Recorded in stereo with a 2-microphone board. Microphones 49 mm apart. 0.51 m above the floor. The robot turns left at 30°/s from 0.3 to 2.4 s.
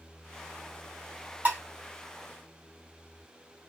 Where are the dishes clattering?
40° right (ahead or behind), 2.5 m.